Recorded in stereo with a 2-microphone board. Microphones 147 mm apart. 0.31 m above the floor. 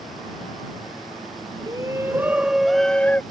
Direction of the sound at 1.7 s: 30° right (ahead or behind).